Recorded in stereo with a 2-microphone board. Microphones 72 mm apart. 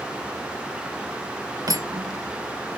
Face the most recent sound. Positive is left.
turn(degrees=-55)  # may be behind; listen again after turning